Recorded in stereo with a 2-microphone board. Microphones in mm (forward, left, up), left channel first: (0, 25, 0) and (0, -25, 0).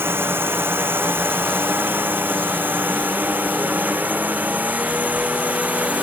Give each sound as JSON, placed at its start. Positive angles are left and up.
{"t": 0.0, "sound": "a drone", "side_deg": -50}